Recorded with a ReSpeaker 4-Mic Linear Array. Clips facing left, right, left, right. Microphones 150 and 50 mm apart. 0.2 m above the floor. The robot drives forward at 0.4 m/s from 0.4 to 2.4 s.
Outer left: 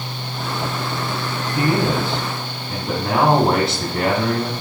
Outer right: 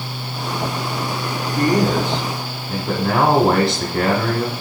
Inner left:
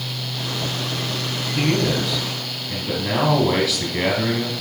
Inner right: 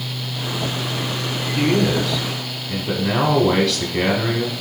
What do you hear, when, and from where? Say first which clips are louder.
1.6 s a man speaking: outer right 2 dB, inner right 3 dB; centre (ahead or behind), 1.1 m